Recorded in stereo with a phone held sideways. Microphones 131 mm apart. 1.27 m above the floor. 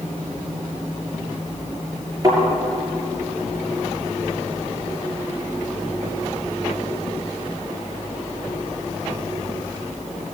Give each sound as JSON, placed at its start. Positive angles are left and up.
{"t": 2.2, "sound": "a thud", "side_deg": -30, "distance_m": 7.0}